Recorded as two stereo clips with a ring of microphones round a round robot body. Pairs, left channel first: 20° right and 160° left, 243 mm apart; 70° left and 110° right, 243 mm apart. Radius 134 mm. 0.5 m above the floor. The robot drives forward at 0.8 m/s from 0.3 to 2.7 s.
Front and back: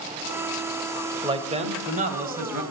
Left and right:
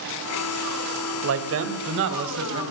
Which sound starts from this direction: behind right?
A man speaking, at 1.2 s.